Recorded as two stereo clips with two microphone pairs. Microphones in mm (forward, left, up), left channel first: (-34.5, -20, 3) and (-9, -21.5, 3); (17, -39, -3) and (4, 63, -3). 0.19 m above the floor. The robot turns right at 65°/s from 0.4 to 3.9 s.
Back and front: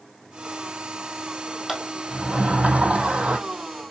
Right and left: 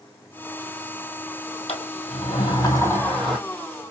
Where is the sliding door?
95° right, 1.7 m; by 3.4 s 15° left, 1.7 m.